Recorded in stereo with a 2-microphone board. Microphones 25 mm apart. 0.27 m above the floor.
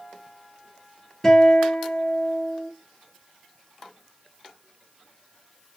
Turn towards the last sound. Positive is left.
turn(degrees=10)  # may be behind; listen again after turning